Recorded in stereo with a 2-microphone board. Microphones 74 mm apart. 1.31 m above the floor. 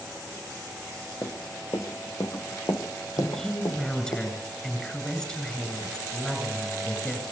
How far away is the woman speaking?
About 8.5 m.